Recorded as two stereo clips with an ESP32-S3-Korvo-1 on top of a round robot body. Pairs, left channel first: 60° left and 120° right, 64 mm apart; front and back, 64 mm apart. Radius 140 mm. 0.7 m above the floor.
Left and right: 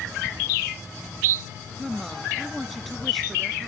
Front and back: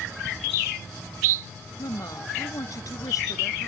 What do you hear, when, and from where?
1.8 s a woman speaking: 30° right